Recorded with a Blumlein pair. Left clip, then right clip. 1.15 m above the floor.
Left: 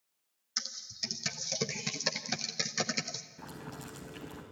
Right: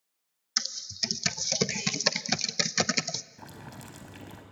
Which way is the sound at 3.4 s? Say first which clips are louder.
Even; 10° right.